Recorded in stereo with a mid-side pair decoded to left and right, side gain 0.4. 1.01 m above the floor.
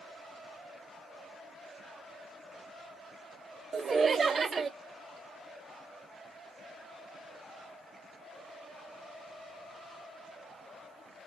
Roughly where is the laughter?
Ahead right.